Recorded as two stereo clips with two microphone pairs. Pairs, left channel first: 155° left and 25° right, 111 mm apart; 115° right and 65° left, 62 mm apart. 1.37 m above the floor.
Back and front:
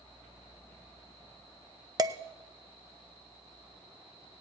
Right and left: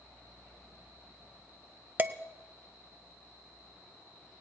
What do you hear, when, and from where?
2.0 s dishes clattering: 20° left, 0.5 m